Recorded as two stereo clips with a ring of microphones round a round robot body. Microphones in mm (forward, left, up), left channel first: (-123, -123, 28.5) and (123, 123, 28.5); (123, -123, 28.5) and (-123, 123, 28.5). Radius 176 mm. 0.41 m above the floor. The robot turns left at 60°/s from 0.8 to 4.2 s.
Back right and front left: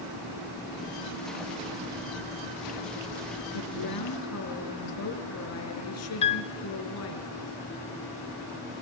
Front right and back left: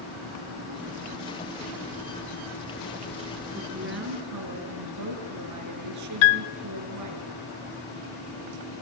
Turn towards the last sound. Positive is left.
turn(degrees=-60)